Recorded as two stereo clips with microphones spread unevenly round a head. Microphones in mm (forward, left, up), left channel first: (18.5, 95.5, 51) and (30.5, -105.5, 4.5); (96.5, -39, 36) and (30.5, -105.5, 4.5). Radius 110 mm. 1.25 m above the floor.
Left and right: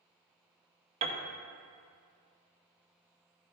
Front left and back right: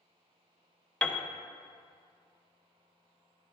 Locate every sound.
1.0 s a piano: 20° right, 0.8 m